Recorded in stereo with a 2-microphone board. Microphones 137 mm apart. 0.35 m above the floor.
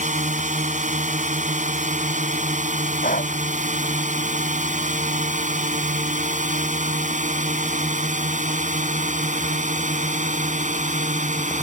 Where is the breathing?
85° left.